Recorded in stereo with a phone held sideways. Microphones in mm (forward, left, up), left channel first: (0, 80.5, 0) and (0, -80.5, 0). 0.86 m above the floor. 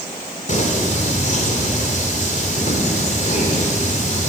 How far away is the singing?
About 3 m.